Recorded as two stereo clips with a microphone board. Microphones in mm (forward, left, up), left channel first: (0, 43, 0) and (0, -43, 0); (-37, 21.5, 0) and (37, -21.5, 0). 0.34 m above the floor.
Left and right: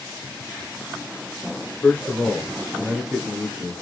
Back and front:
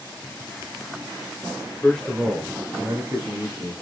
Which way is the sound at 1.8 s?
105° left.